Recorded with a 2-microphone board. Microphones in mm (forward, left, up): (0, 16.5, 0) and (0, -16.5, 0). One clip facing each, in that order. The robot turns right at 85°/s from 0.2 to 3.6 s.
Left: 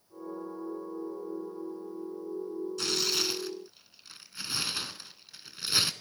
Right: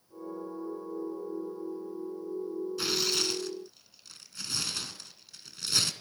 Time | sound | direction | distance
2.8 | tearing paper | 10° right (ahead or behind) | 0.7 m